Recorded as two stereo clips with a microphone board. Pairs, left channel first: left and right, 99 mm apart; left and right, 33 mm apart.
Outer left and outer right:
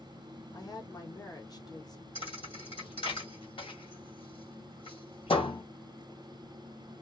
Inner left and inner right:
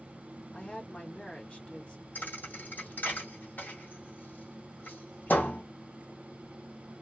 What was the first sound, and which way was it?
A woman speaking, 45° left (ahead or behind).